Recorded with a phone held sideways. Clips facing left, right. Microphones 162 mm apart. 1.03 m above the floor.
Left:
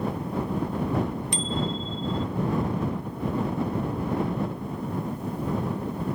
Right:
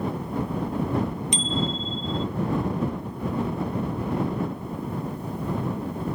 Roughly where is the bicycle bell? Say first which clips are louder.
Right 1 dB; right.